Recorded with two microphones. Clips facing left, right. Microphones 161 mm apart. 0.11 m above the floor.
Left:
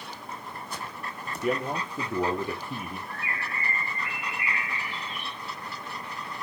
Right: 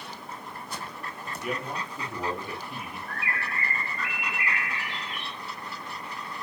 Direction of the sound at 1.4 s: 35° left (ahead or behind).